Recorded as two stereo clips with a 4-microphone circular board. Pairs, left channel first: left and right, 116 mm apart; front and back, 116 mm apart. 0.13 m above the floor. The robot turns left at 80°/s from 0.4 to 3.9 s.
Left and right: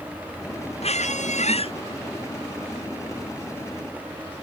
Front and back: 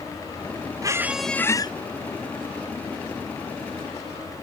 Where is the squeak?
120° left; by 1.7 s 50° left.